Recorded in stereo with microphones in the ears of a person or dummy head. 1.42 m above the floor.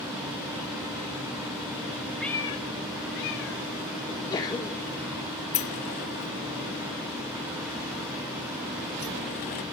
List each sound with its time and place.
2.2 s a cat meowing: centre (ahead or behind), 0.8 m; by 3.7 s 70° left (ahead or behind), 2 m
4.1 s a sneeze: 25° left (ahead or behind), 1.7 m
5.5 s a sliding door: 40° left (ahead or behind), 0.8 m